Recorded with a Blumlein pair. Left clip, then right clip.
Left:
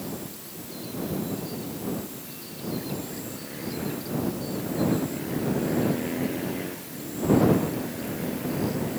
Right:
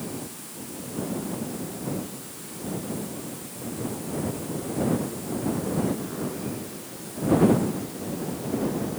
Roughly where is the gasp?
I don't hear a gasp.